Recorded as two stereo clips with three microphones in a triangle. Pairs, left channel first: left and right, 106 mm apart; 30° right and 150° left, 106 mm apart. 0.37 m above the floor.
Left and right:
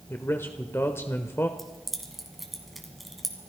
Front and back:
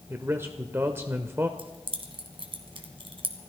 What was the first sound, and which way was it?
A man speaking, 120° left.